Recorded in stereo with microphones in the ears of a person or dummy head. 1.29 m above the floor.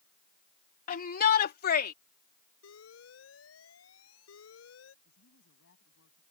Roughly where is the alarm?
Left.